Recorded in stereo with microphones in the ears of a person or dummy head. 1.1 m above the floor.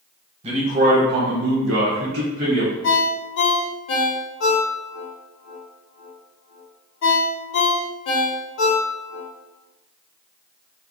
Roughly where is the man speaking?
Right.